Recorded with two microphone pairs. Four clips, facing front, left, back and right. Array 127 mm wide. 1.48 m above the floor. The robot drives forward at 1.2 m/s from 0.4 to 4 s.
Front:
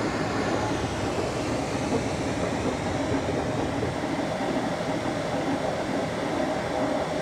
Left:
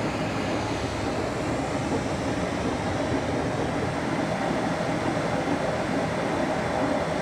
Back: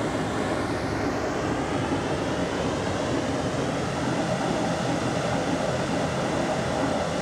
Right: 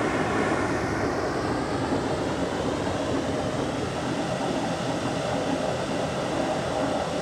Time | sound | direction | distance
0.0 | running water | 85° right | 2 m